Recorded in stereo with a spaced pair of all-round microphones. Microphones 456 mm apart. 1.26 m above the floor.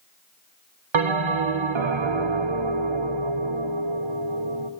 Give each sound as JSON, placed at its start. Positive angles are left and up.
{"t": 0.9, "sound": "a bell", "side_deg": -85, "distance_m": 0.7}